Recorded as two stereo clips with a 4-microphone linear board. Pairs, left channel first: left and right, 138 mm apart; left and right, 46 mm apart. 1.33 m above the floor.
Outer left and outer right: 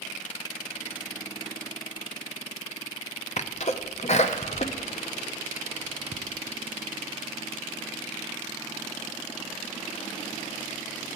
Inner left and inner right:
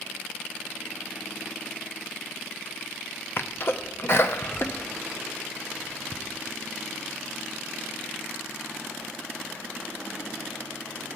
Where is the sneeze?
55° left (ahead or behind), 0.6 m.